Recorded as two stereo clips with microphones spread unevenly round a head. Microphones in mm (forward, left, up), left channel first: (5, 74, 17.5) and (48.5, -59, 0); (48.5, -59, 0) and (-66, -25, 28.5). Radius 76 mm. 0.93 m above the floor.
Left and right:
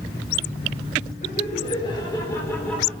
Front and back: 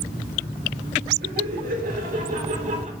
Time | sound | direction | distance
1.2 | laughter | 155° left | 3.5 m